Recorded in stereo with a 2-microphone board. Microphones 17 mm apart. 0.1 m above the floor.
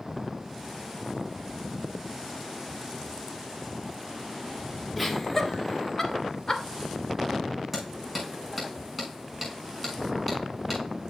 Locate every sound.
5.0 s laughter: 10° left (ahead or behind), 1.6 m; by 6.6 s 40° left (ahead or behind), 1.9 m
7.7 s hammering: centre (ahead or behind), 7 m